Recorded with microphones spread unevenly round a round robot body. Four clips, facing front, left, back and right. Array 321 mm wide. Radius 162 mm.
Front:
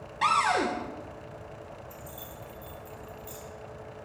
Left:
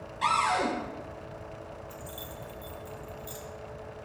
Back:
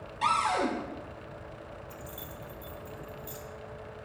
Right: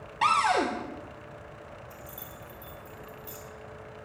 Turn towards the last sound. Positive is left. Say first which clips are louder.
# left 3 dB, even
turn(degrees=-175)